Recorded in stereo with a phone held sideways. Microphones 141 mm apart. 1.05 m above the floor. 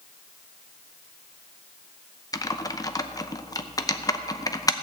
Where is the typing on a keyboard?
25° left (ahead or behind), 0.7 m.